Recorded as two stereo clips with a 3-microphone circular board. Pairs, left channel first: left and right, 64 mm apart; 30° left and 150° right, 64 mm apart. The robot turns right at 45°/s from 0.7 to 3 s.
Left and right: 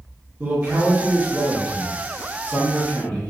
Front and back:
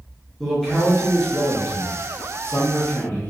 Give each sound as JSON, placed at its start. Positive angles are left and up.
{"t": 0.4, "sound": "a man speaking", "azimuth_deg": -55, "distance_m": 0.8}